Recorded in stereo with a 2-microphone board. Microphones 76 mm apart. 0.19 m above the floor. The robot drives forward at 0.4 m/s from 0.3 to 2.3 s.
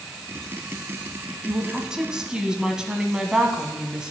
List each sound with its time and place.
1.5 s a woman speaking: 10° right (ahead or behind), 1.0 m